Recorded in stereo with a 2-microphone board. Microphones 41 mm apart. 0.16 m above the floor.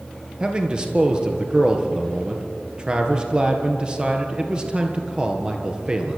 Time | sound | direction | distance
0.4 | a man speaking | 25° right (ahead or behind) | 3 m